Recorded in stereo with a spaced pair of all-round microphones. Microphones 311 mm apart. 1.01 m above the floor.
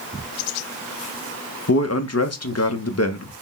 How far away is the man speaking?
About 0.8 m.